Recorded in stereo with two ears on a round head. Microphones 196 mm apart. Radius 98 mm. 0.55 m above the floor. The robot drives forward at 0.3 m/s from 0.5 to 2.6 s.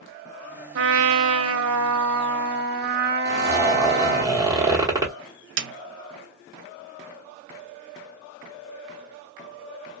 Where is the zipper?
15° right (ahead or behind), 1.1 m.